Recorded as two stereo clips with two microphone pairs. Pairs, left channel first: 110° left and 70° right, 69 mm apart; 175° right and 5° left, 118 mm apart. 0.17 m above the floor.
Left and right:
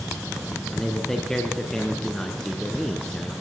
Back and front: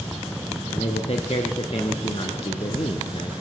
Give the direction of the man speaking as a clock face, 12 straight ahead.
6 o'clock.